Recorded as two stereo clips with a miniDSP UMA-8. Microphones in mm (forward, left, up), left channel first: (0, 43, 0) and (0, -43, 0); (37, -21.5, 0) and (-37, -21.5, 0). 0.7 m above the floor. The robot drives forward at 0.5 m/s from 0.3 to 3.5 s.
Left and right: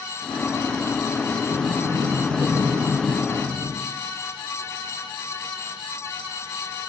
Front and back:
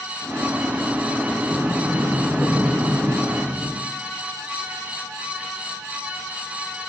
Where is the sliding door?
80° right, 0.8 m; by 3.8 s 140° right, 1.2 m.